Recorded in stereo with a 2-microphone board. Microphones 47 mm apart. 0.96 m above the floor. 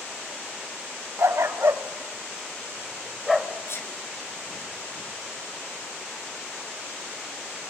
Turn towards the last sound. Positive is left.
turn(degrees=60)  # may be behind; listen again after turning